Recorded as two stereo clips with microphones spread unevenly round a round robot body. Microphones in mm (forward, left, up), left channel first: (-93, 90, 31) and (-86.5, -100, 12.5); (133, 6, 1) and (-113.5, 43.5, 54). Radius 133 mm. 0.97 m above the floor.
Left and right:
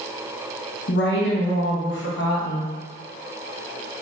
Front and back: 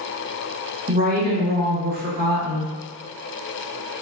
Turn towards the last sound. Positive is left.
turn(degrees=115)